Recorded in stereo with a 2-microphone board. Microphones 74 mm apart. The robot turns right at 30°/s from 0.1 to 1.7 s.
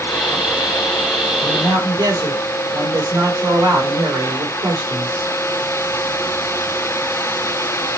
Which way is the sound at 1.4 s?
65° right (ahead or behind).